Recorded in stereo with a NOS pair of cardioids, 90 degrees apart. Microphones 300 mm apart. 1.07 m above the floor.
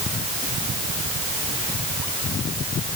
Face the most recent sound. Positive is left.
No sound to turn to.